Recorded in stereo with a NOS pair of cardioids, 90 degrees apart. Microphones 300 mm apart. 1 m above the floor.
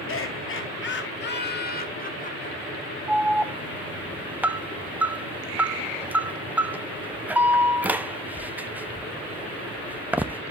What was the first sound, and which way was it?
Laughter, 45° left.